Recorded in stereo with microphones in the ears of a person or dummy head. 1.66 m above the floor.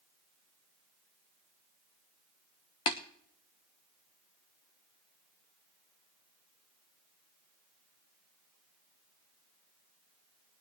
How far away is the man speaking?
I don't hear a man speaking.